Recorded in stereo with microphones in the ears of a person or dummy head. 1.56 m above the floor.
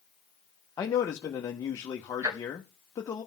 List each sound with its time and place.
0.8 s a man speaking: 15° left (ahead or behind), 0.9 m
2.2 s ticking: 15° right (ahead or behind), 1.0 m